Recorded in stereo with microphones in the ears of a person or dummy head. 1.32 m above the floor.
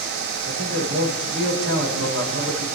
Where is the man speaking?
75° right (ahead or behind), 6 m.